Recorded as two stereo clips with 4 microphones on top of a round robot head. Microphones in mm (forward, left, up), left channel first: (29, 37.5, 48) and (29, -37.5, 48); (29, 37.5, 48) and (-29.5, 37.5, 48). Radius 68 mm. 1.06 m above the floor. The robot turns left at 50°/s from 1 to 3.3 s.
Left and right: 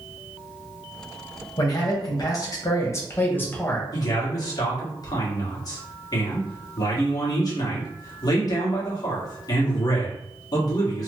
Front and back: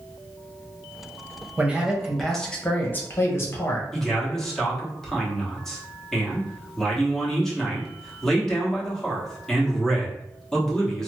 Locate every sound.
1.6 s a man speaking: 120° left, 1.1 m; by 3.8 s 35° left, 1.1 m
3.9 s a man speaking: 80° left, 1.4 m